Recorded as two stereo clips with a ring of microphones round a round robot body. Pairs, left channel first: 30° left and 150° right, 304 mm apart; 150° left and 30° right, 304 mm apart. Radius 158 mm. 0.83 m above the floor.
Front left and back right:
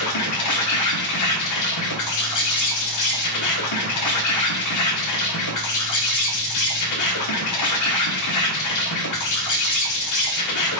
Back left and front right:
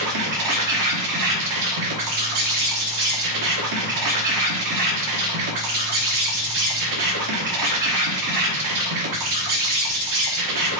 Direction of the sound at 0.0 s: 5° right.